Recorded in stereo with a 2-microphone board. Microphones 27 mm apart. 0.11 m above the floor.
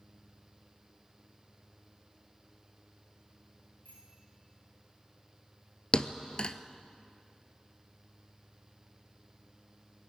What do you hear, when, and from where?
3.9 s a bicycle bell: 80° left, 9.5 m
5.9 s a thud: 40° left (ahead or behind), 0.8 m